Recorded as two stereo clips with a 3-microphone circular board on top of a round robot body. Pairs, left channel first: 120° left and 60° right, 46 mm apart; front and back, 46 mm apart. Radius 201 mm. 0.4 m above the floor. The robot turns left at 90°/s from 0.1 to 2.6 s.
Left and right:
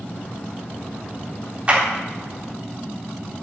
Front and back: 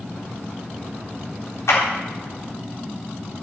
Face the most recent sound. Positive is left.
turn(degrees=-75)